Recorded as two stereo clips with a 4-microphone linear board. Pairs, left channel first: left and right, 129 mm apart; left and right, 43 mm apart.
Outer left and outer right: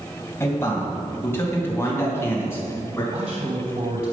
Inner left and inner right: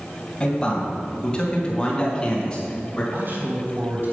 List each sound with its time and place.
0.4 s a man speaking: 20° left (ahead or behind), 2.5 m
3.1 s a man speaking: 55° right (ahead or behind), 3 m